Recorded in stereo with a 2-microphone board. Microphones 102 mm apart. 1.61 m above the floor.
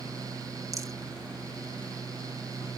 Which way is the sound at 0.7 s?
30° right (ahead or behind).